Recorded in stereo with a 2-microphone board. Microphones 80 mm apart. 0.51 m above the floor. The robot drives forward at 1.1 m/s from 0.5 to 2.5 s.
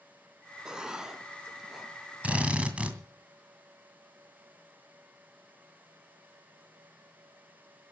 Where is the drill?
15° right (ahead or behind), 2 m.